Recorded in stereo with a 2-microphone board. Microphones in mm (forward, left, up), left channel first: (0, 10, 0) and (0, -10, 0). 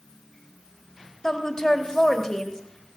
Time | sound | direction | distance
1.2 | a woman speaking | 30° left (ahead or behind) | 1.8 m